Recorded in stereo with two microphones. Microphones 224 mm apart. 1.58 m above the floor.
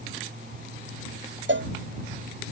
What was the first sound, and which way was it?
A cowbell, 55° right (ahead or behind).